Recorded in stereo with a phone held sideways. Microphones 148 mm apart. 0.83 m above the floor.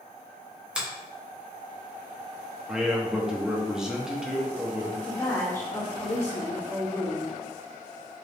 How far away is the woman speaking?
About 1.0 m.